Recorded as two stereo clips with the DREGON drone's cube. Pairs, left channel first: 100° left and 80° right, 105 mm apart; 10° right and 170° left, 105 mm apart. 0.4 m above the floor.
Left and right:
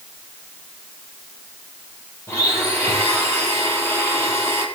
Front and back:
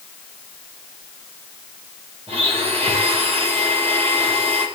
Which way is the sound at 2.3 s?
165° left.